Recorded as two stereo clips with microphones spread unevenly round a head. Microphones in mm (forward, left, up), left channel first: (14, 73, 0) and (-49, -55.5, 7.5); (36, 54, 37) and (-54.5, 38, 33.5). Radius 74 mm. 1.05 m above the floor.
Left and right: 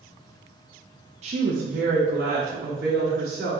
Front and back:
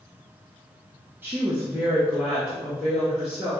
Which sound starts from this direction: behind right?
A woman speaking, at 1.2 s.